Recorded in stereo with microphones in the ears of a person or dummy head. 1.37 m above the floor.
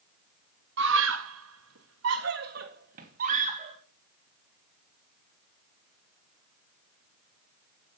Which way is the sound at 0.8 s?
70° right (ahead or behind).